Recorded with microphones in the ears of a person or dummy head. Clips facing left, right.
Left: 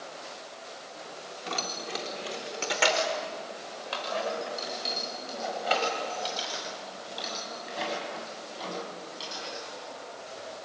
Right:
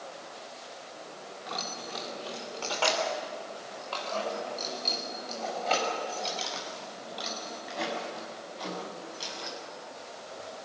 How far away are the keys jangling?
About 3 m.